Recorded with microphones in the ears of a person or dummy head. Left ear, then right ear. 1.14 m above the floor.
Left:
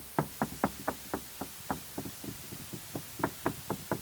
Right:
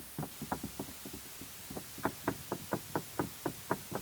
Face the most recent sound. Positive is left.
No sound to turn to.